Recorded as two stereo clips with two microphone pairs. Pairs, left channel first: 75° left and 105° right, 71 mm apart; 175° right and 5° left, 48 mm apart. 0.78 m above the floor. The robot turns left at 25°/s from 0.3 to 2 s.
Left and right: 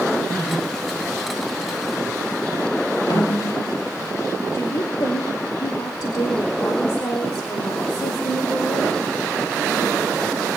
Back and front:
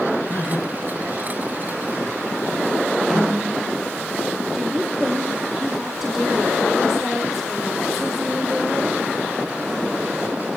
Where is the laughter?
145° left, 7.5 m; by 2.2 s 100° left, 7.5 m.